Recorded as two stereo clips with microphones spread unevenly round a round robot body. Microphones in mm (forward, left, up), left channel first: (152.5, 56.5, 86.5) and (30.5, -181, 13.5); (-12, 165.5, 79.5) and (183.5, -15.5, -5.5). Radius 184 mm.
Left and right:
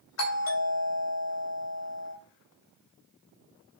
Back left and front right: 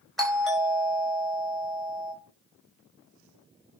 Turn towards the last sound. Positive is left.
turn(degrees=45)